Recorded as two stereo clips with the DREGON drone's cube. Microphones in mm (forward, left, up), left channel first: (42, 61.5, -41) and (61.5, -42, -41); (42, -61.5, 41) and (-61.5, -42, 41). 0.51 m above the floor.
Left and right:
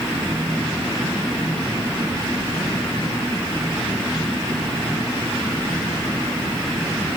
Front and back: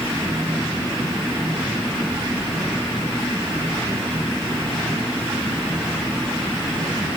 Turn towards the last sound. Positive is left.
No sound to turn to.